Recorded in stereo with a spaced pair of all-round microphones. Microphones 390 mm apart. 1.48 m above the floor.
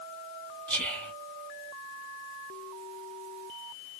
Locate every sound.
0.7 s whispering: 5° left (ahead or behind), 1.1 m